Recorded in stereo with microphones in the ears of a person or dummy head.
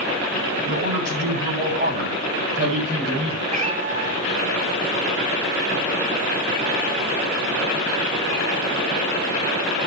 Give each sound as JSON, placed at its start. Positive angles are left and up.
{"t": 0.6, "sound": "a man speaking", "side_deg": -45, "distance_m": 7.5}
{"t": 3.5, "sound": "a cat meowing", "side_deg": -45, "distance_m": 3.0}